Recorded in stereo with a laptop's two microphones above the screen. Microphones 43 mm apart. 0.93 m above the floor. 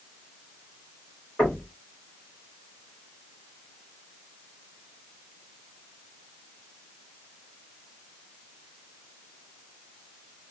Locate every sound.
1.4 s knocking: 20° left (ahead or behind), 4 m